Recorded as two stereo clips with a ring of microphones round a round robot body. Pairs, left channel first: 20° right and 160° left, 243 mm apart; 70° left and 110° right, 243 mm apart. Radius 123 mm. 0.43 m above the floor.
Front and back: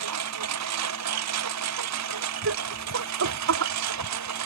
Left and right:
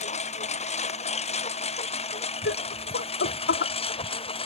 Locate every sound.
0.0 s a lawn mower: 130° left; by 4.5 s 135° left
2.5 s laughter: 120° left